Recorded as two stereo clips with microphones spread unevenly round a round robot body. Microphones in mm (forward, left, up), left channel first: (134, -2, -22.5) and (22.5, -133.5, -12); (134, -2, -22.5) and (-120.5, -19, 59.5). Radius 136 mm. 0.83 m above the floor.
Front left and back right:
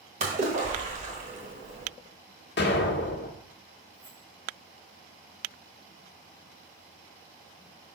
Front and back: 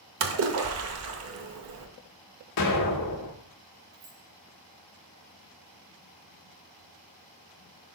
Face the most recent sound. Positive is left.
turn(degrees=165)